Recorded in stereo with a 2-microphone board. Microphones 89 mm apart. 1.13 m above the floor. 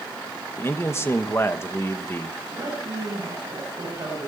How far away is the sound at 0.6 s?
About 1.3 m.